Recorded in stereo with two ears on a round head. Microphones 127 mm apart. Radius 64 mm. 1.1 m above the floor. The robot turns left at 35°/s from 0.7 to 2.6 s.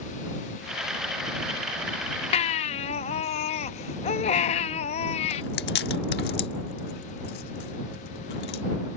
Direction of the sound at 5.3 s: 85° left.